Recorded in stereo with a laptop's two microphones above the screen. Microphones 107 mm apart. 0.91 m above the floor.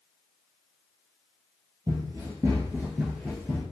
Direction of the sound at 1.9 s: 35° right (ahead or behind).